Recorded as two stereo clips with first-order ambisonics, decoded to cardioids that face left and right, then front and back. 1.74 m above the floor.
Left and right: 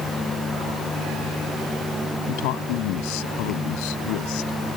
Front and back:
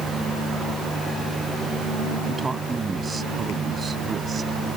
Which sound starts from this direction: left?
A man speaking, at 2.3 s.